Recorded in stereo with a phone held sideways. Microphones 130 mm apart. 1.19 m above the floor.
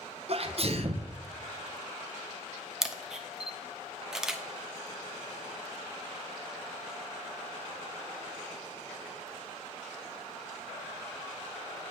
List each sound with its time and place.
0.3 s a sneeze: 50° right (ahead or behind), 0.7 m
2.8 s a camera shutter: 5° right (ahead or behind), 0.6 m